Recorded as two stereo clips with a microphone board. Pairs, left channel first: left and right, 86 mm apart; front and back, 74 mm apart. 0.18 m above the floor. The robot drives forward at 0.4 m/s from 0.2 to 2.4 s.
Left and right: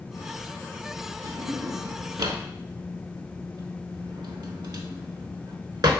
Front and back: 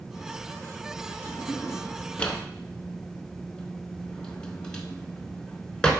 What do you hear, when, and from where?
1.2 s a drawer: 45° right, 0.9 m; by 5.9 s 75° right, 0.7 m